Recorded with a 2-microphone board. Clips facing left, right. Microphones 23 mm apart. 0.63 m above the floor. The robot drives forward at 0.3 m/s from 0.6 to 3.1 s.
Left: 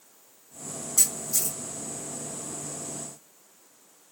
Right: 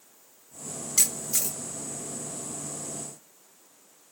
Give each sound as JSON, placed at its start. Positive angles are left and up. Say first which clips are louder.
{"t": 1.0, "sound": "a camera shutter", "louder": "even", "side_deg": -50, "distance_m": 1.4}